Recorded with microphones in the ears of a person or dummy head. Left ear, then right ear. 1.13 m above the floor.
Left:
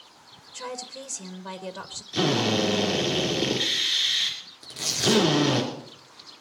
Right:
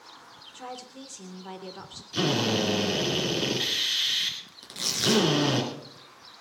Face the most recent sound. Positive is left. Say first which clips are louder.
# left 2 dB
turn(degrees=-40)  # may be behind; listen again after turning